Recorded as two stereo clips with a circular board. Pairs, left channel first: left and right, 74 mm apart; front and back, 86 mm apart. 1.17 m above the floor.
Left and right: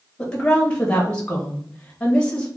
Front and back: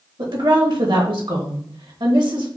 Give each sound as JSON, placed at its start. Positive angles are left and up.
{"t": 0.2, "sound": "a woman speaking", "azimuth_deg": 165, "distance_m": 1.4}